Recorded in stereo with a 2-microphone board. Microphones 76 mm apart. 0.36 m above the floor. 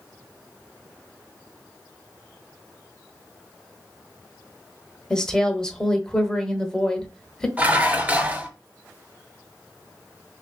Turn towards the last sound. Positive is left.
turn(degrees=-25)  # may be behind; listen again after turning